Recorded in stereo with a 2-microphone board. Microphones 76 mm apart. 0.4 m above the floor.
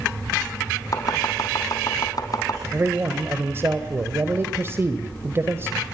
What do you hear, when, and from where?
0.9 s chopping: 50° left (ahead or behind), 4 m
2.7 s a man speaking: 30° right (ahead or behind), 1.9 m